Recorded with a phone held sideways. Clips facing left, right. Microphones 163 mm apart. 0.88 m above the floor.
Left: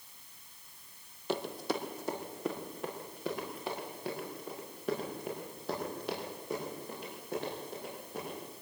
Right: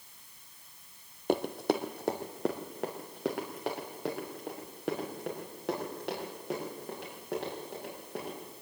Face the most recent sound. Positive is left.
turn(degrees=-75)  # may be behind; listen again after turning